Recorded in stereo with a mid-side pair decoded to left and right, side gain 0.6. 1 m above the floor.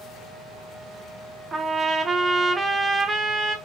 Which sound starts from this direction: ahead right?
A trumpet, at 1.5 s.